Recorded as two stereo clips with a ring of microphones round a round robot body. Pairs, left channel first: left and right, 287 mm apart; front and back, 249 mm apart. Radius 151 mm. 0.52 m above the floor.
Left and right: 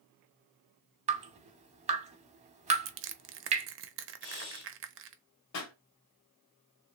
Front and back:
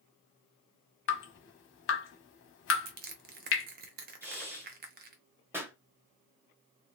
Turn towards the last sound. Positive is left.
turn(degrees=100)